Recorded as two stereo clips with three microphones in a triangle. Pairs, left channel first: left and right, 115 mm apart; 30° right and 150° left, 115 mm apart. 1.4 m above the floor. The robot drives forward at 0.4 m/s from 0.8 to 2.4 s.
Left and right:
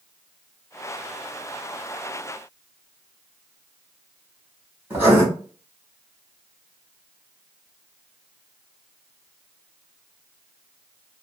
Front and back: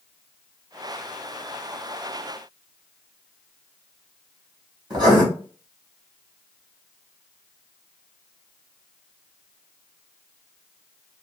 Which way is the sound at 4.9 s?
160° right.